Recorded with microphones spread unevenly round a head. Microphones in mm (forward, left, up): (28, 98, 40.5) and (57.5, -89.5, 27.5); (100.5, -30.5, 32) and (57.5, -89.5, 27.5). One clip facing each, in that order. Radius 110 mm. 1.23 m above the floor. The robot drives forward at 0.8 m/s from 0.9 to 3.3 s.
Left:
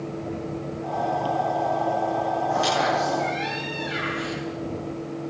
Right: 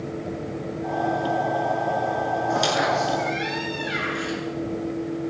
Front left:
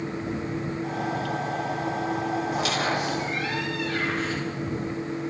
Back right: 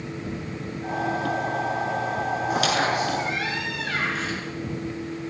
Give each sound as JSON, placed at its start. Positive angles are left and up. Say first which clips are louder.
{"t": 2.5, "sound": "a squeak", "louder": "right 1 dB, back right 6 dB", "azimuth_deg": -135, "distance_m": 8.0}